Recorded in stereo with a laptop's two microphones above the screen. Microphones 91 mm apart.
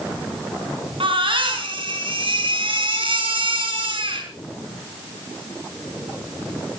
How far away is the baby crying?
About 4.5 m.